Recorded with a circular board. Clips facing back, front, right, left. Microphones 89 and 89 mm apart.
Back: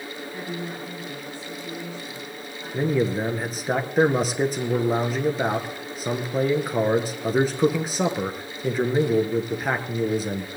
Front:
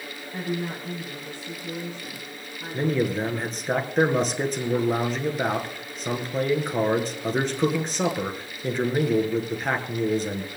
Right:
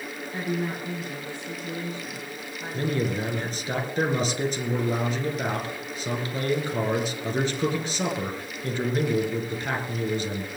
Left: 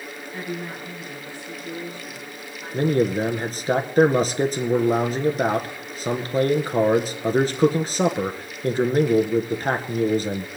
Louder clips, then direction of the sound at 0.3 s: Front 5 dB, right 3 dB; 25° right.